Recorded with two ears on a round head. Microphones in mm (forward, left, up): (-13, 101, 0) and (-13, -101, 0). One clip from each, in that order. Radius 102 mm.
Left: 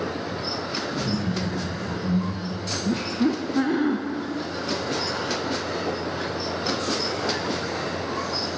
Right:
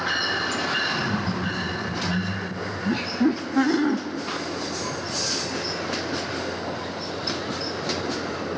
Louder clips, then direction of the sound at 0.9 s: Right 2 dB; 45° left (ahead or behind).